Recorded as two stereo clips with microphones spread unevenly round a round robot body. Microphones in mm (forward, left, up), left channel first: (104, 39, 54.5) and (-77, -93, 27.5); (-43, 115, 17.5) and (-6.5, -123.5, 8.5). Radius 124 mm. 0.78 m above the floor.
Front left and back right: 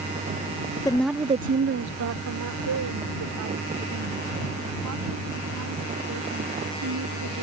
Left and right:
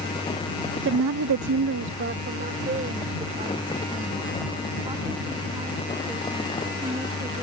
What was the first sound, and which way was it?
A woman speaking, 40° right.